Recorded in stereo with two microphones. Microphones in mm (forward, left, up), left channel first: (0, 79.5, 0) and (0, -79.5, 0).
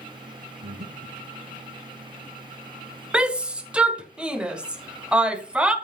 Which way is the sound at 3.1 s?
5° right (ahead or behind).